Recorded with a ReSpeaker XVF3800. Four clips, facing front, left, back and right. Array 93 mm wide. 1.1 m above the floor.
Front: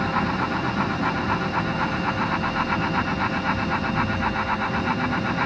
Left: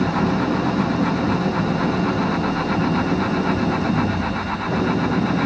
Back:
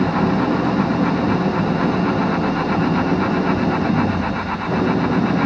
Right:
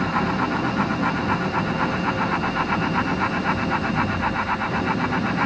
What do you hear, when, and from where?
0.0 s an engine running: 160° left